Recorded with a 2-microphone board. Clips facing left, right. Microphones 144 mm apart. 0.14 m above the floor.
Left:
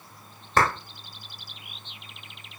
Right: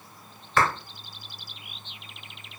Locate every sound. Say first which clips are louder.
0.6 s a clap: left 1 dB; 40° left (ahead or behind), 1.3 m